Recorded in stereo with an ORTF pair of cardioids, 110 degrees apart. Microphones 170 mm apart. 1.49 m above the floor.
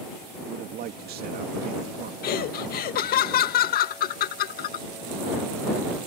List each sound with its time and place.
0.5 s a man speaking: 65° right
2.2 s laughter: 60° left